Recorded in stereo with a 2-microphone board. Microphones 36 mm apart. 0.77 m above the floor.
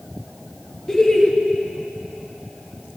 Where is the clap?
No clap in this recording.